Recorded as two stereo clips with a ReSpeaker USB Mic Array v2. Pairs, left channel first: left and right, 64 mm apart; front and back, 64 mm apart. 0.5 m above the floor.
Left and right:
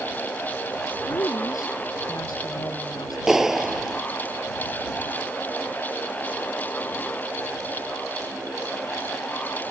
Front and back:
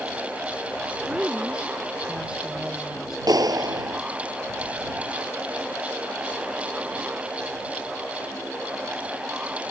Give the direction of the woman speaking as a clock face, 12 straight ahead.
8 o'clock.